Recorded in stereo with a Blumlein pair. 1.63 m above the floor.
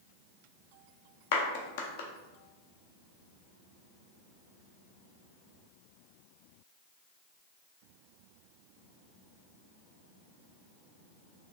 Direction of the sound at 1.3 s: 50° left.